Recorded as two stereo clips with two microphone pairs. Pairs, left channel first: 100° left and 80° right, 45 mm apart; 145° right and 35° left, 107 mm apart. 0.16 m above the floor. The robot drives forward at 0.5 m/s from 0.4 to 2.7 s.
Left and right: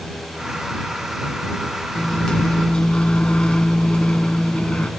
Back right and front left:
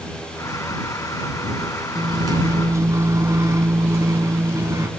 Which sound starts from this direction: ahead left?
A microwave, at 1.9 s.